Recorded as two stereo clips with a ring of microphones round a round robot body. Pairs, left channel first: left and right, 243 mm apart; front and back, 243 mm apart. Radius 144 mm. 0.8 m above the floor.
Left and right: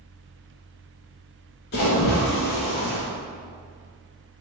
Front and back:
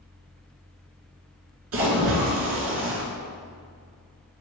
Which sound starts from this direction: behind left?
A splash, at 1.7 s.